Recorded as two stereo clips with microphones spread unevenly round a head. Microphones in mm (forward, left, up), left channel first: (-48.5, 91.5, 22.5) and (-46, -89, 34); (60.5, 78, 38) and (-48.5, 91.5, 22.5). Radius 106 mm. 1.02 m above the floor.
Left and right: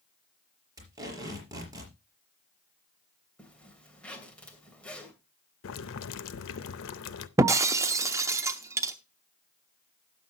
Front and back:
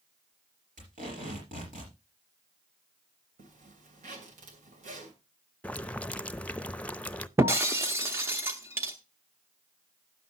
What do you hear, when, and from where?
0.8 s tape being pulled: 160° right, 4.5 m
3.4 s a zipper: 175° left, 2.5 m
5.6 s boiling: 75° left, 0.6 m
7.4 s breaking glass: 125° right, 0.6 m